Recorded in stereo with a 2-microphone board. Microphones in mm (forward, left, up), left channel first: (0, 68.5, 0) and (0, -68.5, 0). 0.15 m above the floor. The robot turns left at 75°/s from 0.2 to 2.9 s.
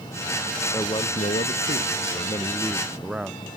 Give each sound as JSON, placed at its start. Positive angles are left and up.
{"t": 0.7, "sound": "a man speaking", "azimuth_deg": 155}